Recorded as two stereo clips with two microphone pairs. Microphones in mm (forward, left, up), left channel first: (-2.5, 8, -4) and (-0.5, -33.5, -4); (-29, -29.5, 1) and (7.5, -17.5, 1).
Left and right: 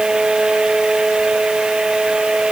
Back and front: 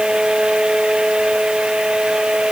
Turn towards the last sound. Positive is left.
No sound to turn to.